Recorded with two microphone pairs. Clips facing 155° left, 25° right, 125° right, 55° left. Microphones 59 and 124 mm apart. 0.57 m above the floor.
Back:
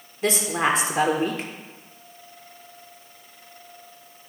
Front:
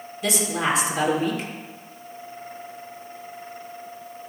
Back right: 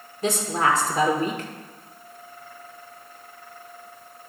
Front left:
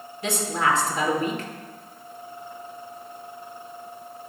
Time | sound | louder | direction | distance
0.2 | a woman speaking | back 2 dB, back right 2 dB | 165° right | 1.5 m